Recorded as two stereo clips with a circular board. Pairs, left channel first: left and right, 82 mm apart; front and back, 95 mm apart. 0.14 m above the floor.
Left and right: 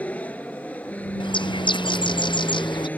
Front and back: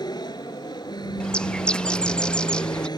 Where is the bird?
80° left.